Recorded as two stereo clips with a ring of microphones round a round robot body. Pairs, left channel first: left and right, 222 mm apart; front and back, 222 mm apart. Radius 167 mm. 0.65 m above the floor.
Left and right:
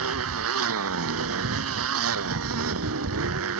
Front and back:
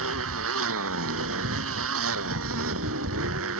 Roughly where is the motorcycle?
Behind right.